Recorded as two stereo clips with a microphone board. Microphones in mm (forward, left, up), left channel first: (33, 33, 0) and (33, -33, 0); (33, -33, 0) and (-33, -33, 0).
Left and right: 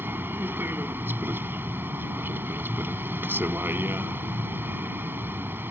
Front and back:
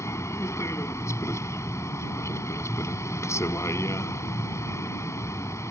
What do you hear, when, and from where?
0.0 s a vehicle: 40° right